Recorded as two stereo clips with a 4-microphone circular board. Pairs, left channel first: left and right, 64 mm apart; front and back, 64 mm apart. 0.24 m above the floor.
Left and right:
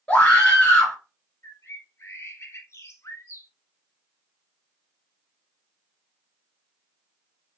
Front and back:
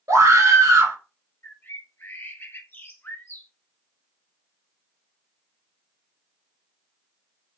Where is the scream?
165° left, 3.5 m.